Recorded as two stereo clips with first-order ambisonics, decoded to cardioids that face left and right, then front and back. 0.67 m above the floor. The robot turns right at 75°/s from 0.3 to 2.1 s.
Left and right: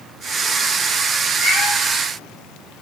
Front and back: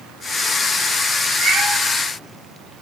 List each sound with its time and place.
1.4 s a cat meowing: 140° left, 2.5 m; by 1.7 s 165° left, 2.5 m